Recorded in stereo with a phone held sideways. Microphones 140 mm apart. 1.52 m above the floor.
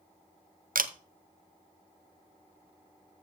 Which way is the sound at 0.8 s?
85° right.